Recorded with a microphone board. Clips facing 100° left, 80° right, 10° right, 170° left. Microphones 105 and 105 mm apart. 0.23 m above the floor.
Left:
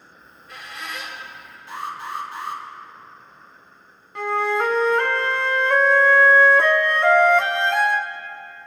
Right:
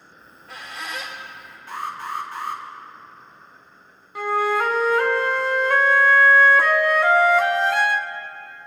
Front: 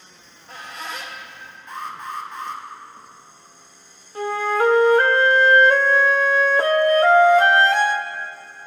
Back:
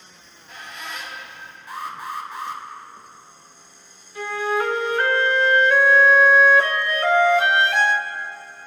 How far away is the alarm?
About 2.5 m.